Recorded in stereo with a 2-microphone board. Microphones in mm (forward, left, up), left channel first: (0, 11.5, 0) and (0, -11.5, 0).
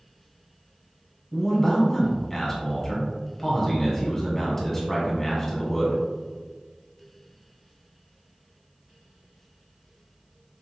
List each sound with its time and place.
1.3 s a man speaking: 10° left (ahead or behind), 1.3 m